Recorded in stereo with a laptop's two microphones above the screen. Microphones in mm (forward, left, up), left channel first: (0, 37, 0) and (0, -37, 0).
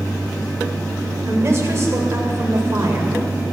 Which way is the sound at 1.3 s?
40° right (ahead or behind).